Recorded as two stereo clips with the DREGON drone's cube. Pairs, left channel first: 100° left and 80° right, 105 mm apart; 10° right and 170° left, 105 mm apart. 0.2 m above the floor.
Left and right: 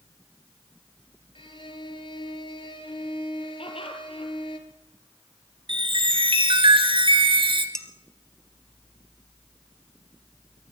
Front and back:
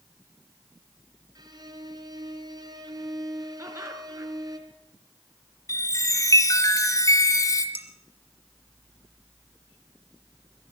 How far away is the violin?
About 3 m.